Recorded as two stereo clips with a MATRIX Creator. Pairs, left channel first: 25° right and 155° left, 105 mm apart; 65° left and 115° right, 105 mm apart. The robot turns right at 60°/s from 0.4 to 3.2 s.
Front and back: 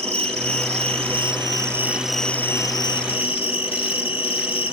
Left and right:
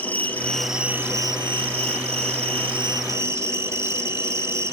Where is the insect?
145° left, 2.5 m; by 4.7 s 50° right, 2.5 m.